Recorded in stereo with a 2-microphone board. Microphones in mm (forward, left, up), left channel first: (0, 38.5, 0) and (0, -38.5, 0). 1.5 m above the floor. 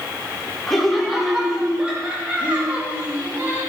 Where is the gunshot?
I don't hear a gunshot.